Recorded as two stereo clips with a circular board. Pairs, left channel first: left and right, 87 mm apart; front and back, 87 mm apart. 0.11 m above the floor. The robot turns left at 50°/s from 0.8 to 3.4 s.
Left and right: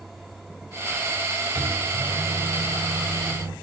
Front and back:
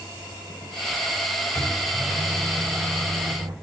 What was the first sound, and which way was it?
A microwave, 55° right.